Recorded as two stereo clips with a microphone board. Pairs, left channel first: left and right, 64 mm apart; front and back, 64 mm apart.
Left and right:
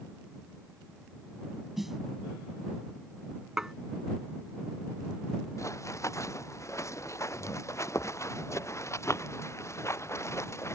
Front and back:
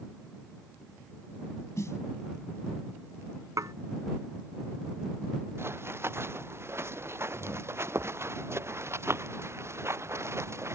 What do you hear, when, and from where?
1.8 s a snare drum: 5° right
3.6 s dishes clattering: 170° right
5.6 s running footsteps: 130° left; by 10.8 s 135° left